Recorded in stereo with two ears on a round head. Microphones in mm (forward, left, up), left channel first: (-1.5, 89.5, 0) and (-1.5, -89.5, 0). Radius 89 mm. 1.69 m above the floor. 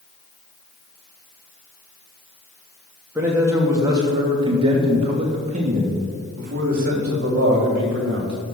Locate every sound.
3.1 s a man speaking: 10° right (ahead or behind), 3 m; by 8.3 s 60° right (ahead or behind), 4 m